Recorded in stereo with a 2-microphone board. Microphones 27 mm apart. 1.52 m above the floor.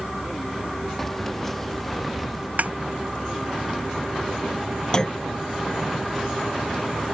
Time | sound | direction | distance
1.0 | keys jangling | 15° left (ahead or behind) | ?
2.6 | a snare drum | 65° right (ahead or behind) | ?
4.9 | a clunk | 25° left (ahead or behind) | ?